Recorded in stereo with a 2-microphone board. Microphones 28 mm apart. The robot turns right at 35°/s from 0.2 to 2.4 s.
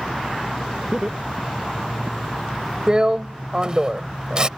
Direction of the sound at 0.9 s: 30° right (ahead or behind).